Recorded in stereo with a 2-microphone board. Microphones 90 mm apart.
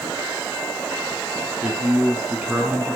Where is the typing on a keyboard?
No typing on a keyboard in this recording.